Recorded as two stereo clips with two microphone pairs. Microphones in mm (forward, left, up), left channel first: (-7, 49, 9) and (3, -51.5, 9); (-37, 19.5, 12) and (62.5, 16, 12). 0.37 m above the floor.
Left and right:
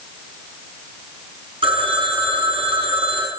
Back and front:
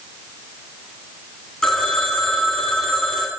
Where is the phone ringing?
95° right, 3 m.